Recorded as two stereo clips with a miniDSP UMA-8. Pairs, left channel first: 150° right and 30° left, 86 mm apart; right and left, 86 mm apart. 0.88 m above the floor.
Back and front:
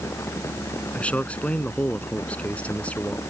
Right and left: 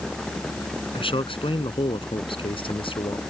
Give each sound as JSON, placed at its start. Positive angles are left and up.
{"t": 0.9, "sound": "a man speaking", "azimuth_deg": -75}